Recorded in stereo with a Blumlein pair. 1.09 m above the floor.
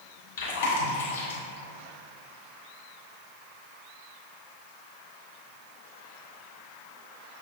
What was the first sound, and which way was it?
Chewing, 55° left.